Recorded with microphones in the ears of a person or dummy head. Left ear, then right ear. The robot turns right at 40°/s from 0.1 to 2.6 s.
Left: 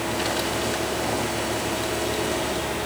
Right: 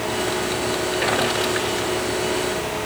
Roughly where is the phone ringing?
No phone ringing in this recording.